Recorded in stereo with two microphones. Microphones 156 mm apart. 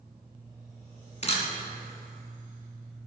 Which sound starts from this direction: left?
A camera shutter, at 1.2 s.